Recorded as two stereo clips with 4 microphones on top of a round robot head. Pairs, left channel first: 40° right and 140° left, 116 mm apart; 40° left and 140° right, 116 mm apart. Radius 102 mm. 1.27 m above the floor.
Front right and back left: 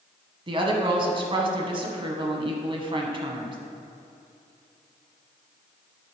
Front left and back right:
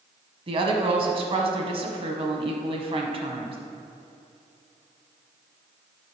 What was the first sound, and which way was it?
A woman speaking, 175° right.